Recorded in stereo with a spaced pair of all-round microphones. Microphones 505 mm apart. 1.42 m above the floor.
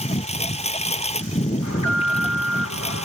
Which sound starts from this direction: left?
An alarm, at 1.6 s.